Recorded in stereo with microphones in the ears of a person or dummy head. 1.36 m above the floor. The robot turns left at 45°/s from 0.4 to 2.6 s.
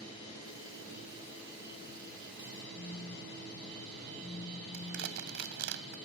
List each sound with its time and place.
2.8 s a phone buzzing: 30° left (ahead or behind)
4.7 s crushing: 65° right (ahead or behind)